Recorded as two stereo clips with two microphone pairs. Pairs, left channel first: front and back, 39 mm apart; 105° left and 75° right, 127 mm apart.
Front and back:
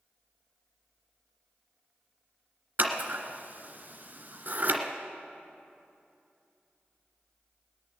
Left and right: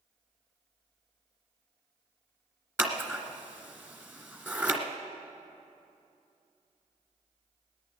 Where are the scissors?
145° right, 1.5 m.